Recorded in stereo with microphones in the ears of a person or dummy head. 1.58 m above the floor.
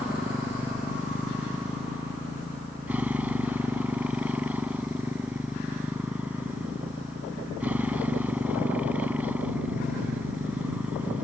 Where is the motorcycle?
10° right (ahead or behind).